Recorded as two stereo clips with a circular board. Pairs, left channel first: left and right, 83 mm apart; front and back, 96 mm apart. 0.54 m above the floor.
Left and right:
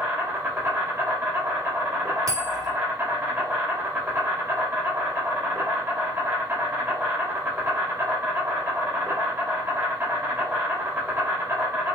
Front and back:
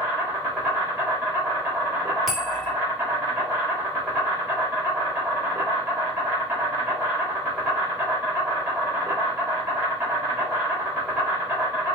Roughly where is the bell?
Right.